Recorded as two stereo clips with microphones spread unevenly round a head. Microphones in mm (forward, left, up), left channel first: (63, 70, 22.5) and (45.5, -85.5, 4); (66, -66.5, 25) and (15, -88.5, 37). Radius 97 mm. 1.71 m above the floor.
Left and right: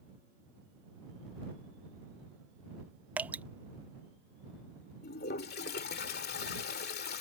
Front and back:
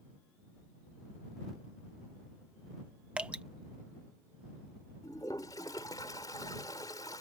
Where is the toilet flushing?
85° left.